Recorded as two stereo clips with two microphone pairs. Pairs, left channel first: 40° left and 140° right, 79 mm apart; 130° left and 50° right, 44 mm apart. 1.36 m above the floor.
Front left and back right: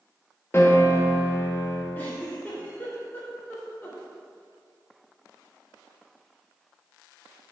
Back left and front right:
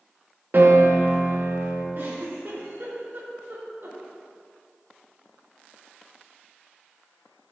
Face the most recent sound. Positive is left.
turn(degrees=-25)